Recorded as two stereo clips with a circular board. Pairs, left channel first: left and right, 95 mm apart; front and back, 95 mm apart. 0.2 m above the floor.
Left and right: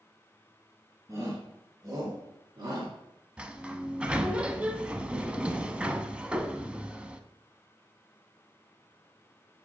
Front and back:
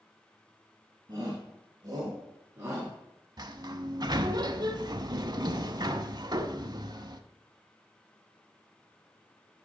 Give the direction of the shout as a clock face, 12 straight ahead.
5 o'clock.